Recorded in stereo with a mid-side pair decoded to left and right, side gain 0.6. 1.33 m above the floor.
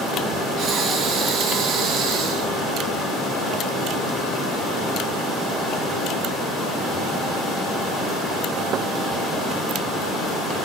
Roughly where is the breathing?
Ahead right.